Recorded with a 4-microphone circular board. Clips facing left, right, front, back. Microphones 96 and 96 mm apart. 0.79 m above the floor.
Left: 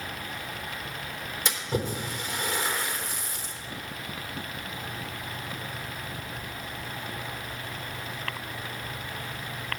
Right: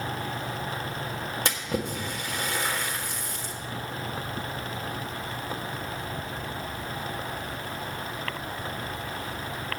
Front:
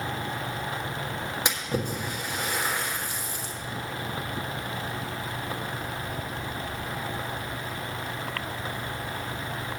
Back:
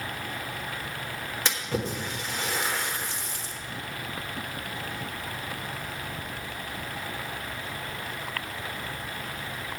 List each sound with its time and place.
1.4 s a splash: 75° right, 1.5 m